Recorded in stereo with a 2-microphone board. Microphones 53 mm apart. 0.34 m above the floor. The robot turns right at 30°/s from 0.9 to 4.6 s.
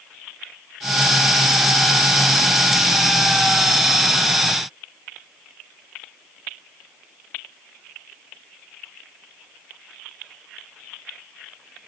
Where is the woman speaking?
No woman speaking in this recording.